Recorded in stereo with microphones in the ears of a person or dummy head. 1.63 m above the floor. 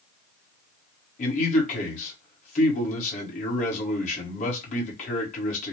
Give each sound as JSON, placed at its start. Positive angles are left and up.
{"t": 1.2, "sound": "a man speaking", "side_deg": 45, "distance_m": 1.5}